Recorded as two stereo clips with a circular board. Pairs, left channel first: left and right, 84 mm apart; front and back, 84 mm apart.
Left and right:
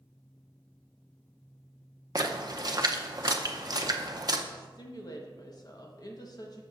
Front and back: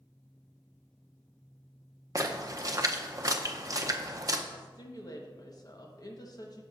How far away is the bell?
No bell in this recording.